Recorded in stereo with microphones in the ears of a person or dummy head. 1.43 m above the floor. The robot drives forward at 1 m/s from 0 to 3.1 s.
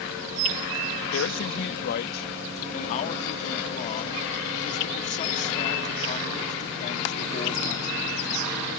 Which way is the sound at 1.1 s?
75° left (ahead or behind).